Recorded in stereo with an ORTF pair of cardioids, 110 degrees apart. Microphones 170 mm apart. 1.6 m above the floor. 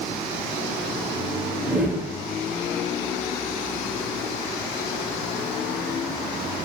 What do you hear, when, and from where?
1.6 s a whoosh: 5° right, 0.6 m